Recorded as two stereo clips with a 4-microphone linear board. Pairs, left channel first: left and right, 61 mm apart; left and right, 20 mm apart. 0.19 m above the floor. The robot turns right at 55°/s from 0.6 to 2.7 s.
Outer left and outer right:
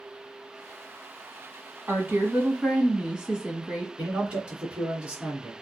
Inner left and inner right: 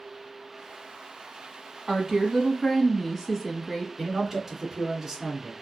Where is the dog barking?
No dog barking in this recording.